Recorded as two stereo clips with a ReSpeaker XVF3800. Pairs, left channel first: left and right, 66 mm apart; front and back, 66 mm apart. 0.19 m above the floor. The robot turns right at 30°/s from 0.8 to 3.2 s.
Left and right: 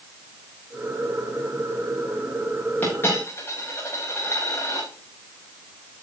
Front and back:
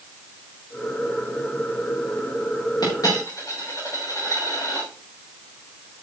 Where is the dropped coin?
25° left, 8.5 m; by 4.9 s 40° left, 8.5 m.